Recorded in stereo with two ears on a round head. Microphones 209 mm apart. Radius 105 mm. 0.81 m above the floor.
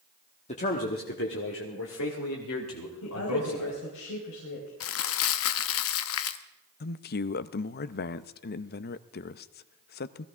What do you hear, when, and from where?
0.5 s a man speaking: 30° left (ahead or behind), 1.2 m; by 3.8 s 75° left (ahead or behind), 3 m
3.0 s a woman speaking: 60° left (ahead or behind), 4 m
4.8 s crumpling: 65° left (ahead or behind), 0.8 m
6.8 s a man speaking: 45° left (ahead or behind), 0.5 m